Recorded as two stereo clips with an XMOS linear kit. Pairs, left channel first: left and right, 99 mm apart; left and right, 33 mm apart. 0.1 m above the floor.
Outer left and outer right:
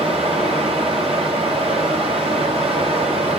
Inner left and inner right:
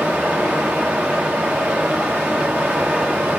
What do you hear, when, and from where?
0.0 s running water: 70° right (ahead or behind), 1.6 m